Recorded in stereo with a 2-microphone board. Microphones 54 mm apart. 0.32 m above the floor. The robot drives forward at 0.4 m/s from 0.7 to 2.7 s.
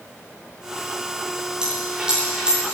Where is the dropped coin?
15° right (ahead or behind), 7 m.